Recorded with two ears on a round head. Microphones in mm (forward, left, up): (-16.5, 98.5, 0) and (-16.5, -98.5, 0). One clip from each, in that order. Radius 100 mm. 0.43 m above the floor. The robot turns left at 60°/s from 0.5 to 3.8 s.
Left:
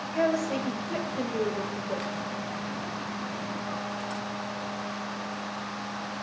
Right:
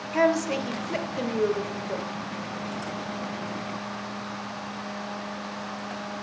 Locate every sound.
0.1 s a woman speaking: 105° right, 1.2 m; by 2.1 s 165° left, 1.2 m